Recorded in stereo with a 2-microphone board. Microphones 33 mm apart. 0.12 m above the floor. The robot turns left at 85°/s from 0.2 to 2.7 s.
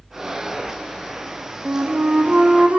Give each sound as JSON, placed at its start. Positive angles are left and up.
{"t": 1.6, "sound": "a flute", "azimuth_deg": -50, "distance_m": 1.5}